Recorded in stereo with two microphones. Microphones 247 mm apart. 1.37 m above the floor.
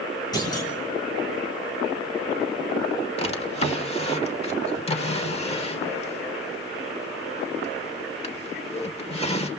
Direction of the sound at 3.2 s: 25° left (ahead or behind).